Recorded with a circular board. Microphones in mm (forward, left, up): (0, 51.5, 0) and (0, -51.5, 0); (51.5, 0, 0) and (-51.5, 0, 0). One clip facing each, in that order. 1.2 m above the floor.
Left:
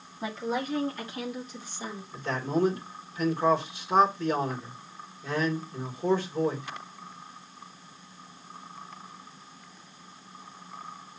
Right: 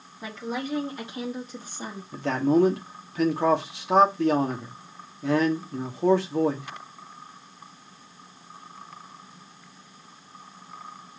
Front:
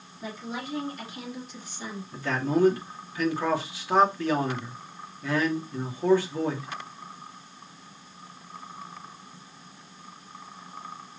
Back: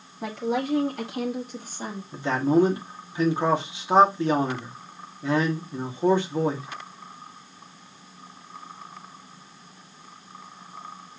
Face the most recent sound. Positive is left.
turn(degrees=-110)